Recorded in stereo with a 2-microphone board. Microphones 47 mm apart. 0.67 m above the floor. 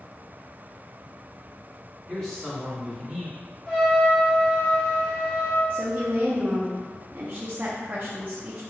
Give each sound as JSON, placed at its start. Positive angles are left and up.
{"t": 2.1, "sound": "a man speaking", "side_deg": 10, "distance_m": 1.9}
{"t": 3.7, "sound": "a trumpet", "side_deg": 15, "distance_m": 1.1}
{"t": 5.7, "sound": "a woman speaking", "side_deg": -35, "distance_m": 0.6}